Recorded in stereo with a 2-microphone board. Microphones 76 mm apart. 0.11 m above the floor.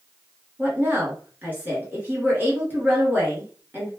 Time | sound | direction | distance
0.6 | a woman speaking | 25° right (ahead or behind) | 1.5 m